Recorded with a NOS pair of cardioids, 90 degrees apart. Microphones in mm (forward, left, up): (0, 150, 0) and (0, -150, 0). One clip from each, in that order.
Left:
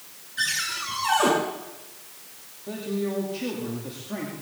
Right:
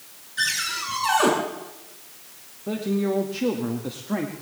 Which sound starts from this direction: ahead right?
A man speaking, at 2.7 s.